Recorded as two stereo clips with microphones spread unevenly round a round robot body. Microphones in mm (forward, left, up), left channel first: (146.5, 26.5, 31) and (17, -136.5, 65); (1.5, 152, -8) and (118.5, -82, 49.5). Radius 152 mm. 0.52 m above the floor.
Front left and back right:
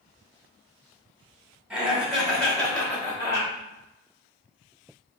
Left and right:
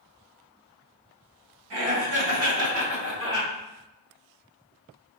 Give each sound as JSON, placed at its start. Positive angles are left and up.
{"t": 1.7, "sound": "laughter", "azimuth_deg": -40, "distance_m": 2.0}